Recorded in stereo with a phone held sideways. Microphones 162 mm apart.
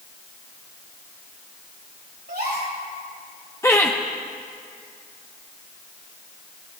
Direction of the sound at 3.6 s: 15° left (ahead or behind).